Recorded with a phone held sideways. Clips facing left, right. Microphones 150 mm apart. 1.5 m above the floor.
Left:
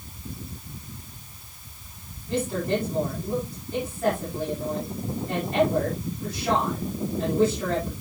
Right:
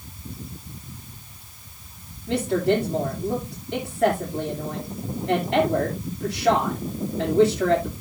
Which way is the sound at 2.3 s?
80° right.